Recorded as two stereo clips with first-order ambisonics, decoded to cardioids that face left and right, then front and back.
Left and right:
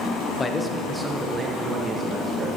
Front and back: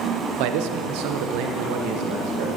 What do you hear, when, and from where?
0.4 s a man speaking: 160° left, 0.9 m; by 2.5 s 165° right, 2.5 m